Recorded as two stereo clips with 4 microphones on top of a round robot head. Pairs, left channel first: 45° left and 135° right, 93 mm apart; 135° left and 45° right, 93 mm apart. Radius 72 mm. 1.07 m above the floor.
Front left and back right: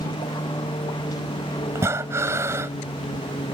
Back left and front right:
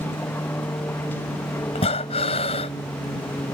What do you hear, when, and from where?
0.0 s an aircraft: 75° left
1.8 s breathing: 160° left